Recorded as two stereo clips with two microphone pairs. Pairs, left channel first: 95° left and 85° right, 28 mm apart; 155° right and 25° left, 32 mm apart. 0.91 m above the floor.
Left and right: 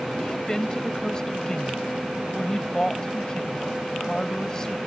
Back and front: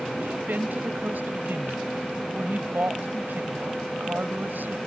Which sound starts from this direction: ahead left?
A woman speaking, at 0.2 s.